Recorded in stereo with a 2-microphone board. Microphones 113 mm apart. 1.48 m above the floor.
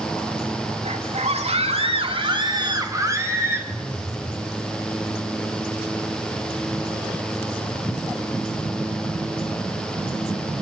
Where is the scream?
85° right, 3.5 m; by 3.6 s 20° right (ahead or behind), 4 m.